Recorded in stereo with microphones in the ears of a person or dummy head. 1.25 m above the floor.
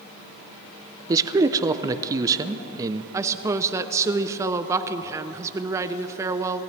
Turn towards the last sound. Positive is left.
turn(degrees=-15)  # may be behind; listen again after turning